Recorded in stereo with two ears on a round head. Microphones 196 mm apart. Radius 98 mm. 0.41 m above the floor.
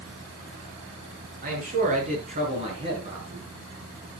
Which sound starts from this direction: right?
A man speaking, at 1.4 s.